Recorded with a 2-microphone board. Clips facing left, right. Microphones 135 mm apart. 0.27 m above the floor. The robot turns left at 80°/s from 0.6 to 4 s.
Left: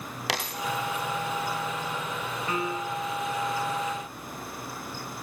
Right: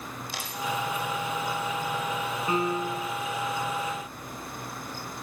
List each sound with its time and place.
0.3 s a dropped coin: 80° left, 4.5 m; by 1.1 s 60° left (ahead or behind), 4.5 m
2.5 s a piano: 20° right, 2 m; by 3.1 s 75° right, 2 m